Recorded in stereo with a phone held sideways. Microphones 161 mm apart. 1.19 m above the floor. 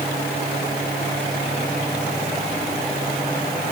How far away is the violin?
No violin in this recording.